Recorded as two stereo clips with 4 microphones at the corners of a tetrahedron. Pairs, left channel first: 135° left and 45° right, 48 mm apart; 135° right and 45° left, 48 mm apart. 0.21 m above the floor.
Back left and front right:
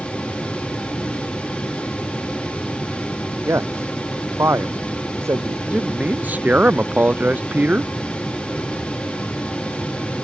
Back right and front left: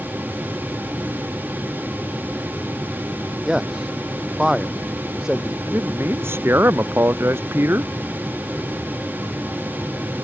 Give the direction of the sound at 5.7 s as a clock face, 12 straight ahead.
12 o'clock.